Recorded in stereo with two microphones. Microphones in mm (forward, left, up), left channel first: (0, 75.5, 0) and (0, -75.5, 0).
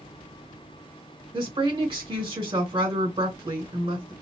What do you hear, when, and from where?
1.3 s a woman speaking: 35° right (ahead or behind), 1.9 m